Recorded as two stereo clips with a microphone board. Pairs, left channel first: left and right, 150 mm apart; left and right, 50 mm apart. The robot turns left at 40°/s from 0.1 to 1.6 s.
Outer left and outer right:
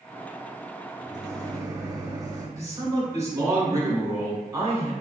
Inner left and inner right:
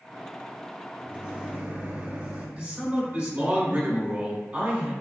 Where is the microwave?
25° right (ahead or behind), 0.8 m.